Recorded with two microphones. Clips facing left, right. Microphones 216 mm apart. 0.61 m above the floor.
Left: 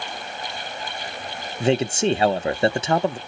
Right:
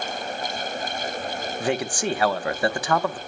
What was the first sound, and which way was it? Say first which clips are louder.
A man speaking: left 6 dB; 25° left (ahead or behind).